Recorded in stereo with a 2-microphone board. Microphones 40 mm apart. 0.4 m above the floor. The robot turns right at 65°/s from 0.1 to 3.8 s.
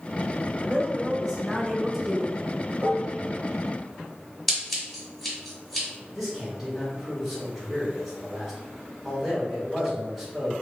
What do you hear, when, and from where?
0.6 s a woman speaking: 20° right (ahead or behind), 0.9 m; by 2.4 s 10° left (ahead or behind), 0.9 m
2.8 s dishes clattering: 60° right (ahead or behind), 0.9 m; by 3.2 s 55° right (ahead or behind), 0.9 m
4.5 s scissors: 5° left (ahead or behind), 1.8 m
6.1 s a man speaking: centre (ahead or behind), 1.8 m